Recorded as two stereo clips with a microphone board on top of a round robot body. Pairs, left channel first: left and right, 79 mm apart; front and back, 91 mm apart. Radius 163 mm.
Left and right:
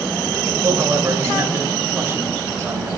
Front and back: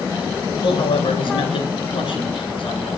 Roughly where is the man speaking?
Ahead right.